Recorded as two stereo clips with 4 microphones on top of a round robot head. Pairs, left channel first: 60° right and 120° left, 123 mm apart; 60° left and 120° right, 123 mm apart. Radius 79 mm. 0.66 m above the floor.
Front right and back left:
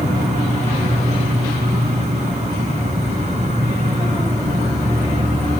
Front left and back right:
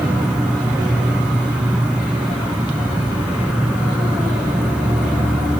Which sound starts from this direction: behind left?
An insect, at 0.0 s.